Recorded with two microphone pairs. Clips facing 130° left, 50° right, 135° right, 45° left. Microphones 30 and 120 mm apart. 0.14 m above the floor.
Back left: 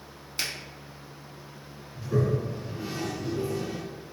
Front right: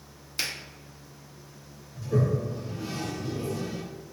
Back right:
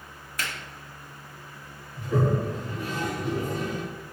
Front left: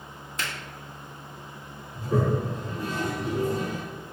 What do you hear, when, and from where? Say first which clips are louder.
0.4 s a finger snap: even, even; 45° left, 1.2 m
1.9 s a toilet flushing: even, even; 70° left, 1.1 m